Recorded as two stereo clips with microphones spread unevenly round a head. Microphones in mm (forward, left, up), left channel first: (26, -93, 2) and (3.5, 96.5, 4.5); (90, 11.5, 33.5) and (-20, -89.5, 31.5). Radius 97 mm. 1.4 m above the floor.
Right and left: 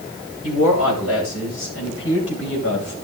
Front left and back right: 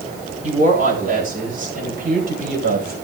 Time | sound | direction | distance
0.4 | a woman speaking | 105° right | 9 m